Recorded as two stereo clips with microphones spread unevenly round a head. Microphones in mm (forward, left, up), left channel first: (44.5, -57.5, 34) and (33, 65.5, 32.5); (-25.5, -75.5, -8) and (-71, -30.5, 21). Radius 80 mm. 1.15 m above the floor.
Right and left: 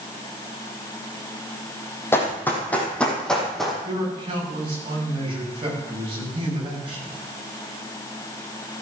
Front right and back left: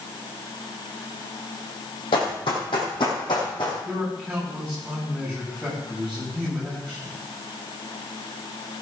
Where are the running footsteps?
15° right, 2.5 m; by 3.8 s 5° left, 3 m.